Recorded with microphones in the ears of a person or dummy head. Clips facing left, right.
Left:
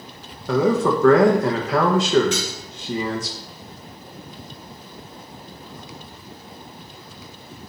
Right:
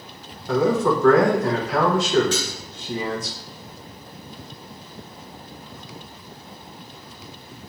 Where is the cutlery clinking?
25° left (ahead or behind), 2 m.